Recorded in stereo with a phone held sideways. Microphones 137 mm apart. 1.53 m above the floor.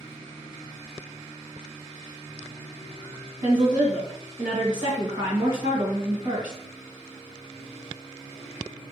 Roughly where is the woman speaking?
Right.